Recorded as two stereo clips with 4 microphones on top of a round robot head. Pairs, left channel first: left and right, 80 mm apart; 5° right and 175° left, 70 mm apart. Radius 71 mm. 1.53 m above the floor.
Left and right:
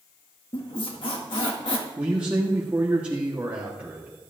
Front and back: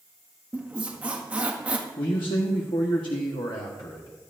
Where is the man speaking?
15° right, 1.2 m.